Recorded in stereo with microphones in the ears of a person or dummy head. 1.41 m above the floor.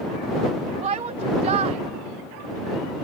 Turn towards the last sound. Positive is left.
turn(degrees=-30)  # may be behind; listen again after turning